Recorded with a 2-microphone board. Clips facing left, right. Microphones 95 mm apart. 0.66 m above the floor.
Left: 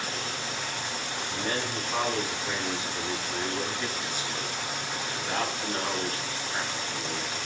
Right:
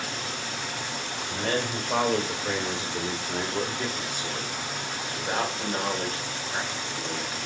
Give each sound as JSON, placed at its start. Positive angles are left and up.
{"t": 1.2, "sound": "a man speaking", "side_deg": -70, "distance_m": 2.5}